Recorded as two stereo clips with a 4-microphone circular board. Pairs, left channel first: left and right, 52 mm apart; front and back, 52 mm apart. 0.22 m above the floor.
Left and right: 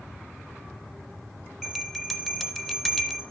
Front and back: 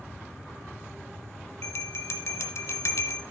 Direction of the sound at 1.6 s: 5° left.